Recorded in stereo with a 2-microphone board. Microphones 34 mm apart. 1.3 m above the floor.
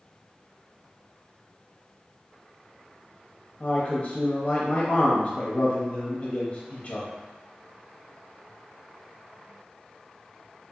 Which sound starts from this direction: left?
A man speaking, at 3.6 s.